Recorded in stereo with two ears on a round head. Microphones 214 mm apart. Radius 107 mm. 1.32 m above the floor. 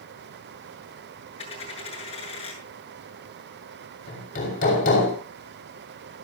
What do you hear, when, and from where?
1.4 s a dropped coin: 25° left (ahead or behind), 7.5 m
4.1 s hammering: 35° left (ahead or behind), 7 m